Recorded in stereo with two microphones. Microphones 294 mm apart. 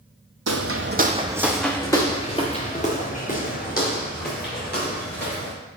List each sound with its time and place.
0.5 s footsteps: 60° right (ahead or behind), 0.8 m; by 5.5 s 35° left (ahead or behind), 4.5 m